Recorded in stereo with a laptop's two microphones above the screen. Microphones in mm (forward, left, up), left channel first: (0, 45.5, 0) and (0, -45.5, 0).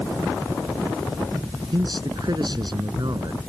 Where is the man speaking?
55° right (ahead or behind).